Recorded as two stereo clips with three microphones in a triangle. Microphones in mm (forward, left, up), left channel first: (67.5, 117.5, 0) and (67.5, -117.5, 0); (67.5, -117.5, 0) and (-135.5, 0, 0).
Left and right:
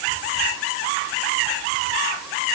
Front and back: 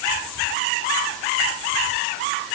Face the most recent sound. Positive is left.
No sound to turn to.